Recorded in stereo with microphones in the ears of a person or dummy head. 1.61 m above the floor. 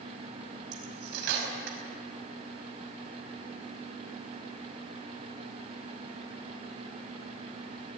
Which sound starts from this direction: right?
Cutlery clinking, at 0.7 s.